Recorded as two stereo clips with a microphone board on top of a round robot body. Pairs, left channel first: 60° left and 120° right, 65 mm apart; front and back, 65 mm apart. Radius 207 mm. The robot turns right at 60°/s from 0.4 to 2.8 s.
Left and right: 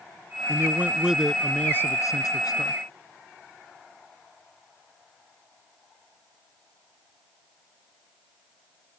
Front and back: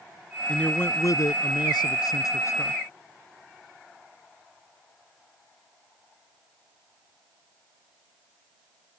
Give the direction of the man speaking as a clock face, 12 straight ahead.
3 o'clock.